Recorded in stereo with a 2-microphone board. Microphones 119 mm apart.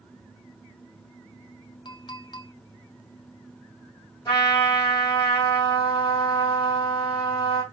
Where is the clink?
40° left (ahead or behind), 0.6 m.